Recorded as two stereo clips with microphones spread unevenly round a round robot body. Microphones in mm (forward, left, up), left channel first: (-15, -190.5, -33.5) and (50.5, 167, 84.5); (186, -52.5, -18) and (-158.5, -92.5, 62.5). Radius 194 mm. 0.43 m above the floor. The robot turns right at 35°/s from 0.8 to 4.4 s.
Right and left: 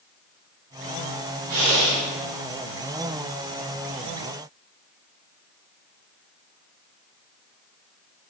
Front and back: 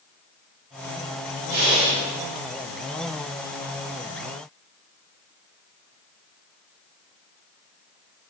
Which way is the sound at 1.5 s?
140° left.